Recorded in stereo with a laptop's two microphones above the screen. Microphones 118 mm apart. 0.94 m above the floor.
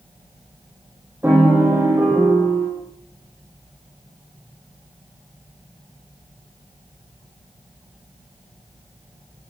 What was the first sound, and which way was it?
A piano, 20° right (ahead or behind).